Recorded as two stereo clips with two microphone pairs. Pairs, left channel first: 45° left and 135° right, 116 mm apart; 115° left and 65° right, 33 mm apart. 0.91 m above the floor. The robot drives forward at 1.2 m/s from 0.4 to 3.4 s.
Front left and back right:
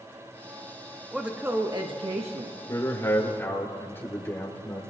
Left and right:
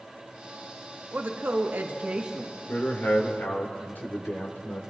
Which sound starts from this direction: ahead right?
A woman speaking, at 1.1 s.